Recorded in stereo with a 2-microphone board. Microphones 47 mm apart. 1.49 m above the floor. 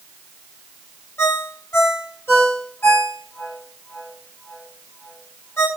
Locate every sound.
1.2 s a ringtone: 55° left (ahead or behind), 3.5 m